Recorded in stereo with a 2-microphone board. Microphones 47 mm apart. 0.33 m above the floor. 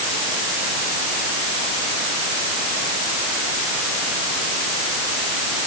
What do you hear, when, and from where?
Only background noise.